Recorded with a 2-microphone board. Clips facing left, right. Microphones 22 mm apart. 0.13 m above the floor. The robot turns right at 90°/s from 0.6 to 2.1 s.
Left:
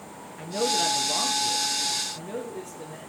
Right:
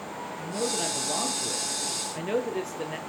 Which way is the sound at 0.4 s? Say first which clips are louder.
Left 5 dB; 160° left.